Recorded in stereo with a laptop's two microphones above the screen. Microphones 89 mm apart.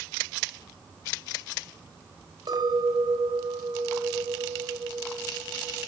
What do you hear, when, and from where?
2.5 s a clink: 50° right (ahead or behind), 3.5 m